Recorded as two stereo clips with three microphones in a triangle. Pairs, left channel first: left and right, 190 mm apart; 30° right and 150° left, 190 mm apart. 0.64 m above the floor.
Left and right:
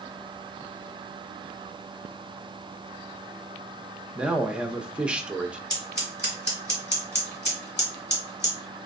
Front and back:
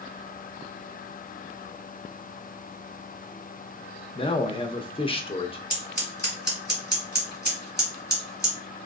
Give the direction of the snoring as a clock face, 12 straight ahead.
I don't hear snoring.